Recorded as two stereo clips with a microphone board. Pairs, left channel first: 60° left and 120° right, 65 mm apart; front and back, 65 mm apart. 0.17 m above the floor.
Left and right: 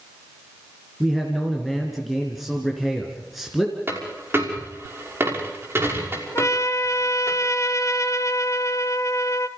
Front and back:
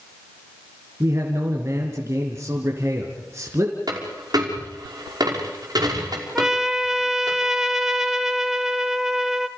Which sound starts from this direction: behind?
A dropped coin, at 3.9 s.